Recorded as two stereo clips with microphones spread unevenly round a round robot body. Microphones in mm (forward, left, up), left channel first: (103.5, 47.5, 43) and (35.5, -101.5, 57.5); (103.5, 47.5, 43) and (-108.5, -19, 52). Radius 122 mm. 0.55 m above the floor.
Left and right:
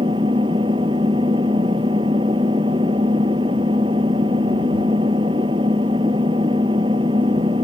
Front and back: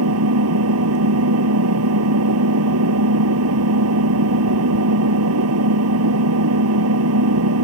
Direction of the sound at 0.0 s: 175° left.